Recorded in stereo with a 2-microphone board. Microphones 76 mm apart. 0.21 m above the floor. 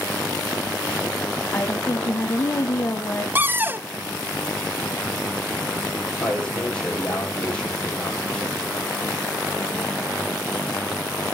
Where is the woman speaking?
35° left (ahead or behind), 1.2 m.